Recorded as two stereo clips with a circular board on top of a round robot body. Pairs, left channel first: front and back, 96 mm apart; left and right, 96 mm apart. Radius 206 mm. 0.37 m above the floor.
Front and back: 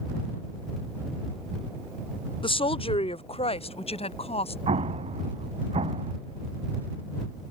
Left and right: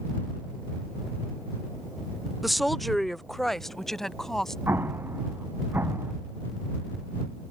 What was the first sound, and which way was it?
A woman speaking, straight ahead.